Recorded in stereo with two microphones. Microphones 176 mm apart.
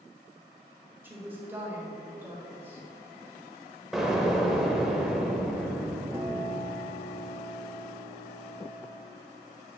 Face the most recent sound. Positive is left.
turn(degrees=-15)  # may be behind; listen again after turning